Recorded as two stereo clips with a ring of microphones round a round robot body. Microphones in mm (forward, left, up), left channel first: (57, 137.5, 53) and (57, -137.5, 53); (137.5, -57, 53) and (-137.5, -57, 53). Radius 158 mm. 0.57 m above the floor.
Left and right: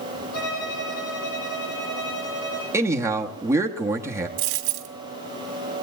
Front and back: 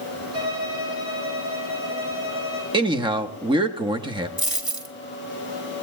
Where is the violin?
100° left, 6 m.